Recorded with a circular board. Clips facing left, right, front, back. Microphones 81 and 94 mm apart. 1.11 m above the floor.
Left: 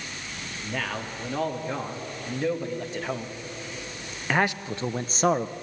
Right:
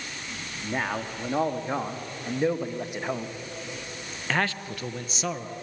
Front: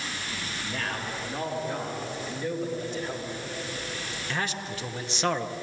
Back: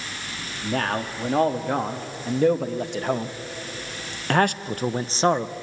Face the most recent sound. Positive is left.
turn(degrees=115)